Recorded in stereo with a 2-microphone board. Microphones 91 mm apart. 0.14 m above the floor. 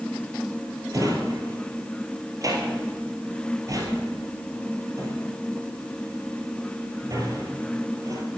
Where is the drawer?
40° right (ahead or behind), 2.0 m.